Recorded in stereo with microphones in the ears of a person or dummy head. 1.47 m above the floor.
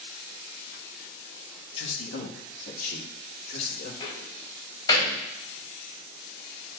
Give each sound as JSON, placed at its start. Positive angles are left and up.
{"t": 1.8, "sound": "a man speaking", "side_deg": 75, "distance_m": 1.6}
{"t": 4.0, "sound": "a door slam", "side_deg": 25, "distance_m": 5.5}